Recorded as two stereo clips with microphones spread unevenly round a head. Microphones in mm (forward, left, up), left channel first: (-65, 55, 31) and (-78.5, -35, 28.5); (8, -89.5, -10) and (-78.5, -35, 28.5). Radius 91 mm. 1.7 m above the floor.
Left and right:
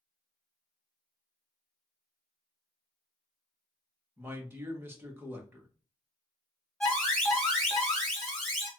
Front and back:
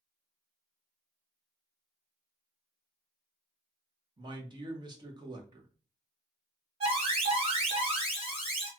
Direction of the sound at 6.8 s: 165° left.